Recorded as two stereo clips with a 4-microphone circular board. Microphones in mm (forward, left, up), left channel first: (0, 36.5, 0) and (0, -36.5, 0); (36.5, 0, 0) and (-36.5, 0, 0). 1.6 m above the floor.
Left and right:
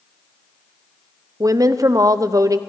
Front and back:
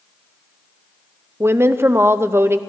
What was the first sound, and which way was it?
A woman speaking, 125° right.